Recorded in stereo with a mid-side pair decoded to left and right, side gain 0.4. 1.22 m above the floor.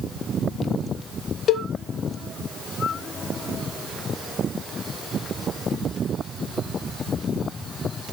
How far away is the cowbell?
About 0.5 m.